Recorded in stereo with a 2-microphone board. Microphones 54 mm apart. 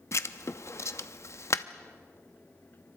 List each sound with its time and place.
0.1 s writing: 60° left (ahead or behind), 0.8 m